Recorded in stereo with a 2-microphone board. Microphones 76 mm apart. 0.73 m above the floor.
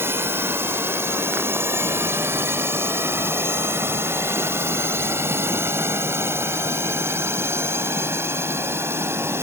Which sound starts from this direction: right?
A drone, at 0.0 s.